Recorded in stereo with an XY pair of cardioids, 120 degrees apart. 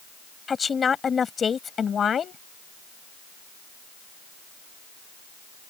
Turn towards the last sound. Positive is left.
turn(degrees=40)